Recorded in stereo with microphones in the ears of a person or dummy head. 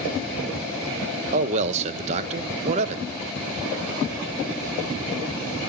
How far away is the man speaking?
About 0.5 m.